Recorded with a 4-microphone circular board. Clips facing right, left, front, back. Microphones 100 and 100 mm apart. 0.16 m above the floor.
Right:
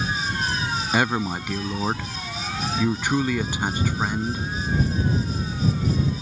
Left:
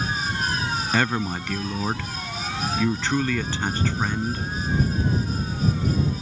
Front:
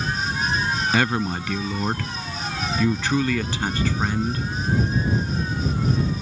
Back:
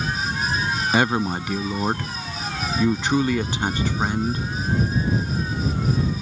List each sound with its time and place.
0.9 s a man speaking: 145° right